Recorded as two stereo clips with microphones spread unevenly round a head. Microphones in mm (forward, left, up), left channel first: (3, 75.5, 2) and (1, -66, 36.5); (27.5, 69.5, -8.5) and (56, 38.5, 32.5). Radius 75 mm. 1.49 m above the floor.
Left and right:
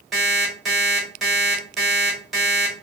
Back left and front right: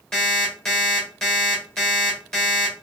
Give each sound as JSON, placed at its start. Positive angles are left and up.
{"t": 0.1, "sound": "an alarm clock", "azimuth_deg": -25, "distance_m": 1.1}